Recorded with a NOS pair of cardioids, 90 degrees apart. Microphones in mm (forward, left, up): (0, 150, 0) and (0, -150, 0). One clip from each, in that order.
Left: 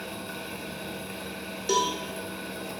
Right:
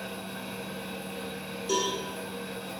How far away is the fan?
About 0.9 m.